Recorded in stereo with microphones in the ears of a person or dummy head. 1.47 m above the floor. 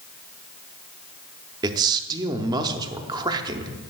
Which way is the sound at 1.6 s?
20° right (ahead or behind).